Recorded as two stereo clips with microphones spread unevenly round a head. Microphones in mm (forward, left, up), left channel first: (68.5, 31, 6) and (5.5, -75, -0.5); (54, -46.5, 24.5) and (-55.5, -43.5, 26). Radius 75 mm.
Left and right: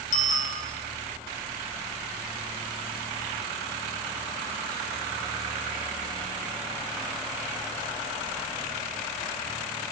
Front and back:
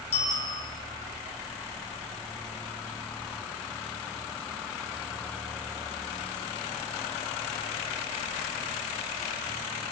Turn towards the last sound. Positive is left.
turn(degrees=45)